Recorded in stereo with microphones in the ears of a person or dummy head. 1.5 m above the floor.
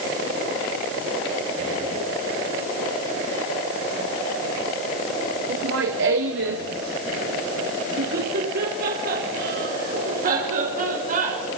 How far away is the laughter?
About 1.7 m.